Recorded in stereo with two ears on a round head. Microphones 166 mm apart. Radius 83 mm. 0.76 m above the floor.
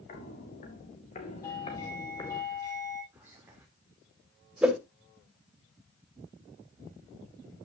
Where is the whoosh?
5° right (ahead or behind), 1.9 m.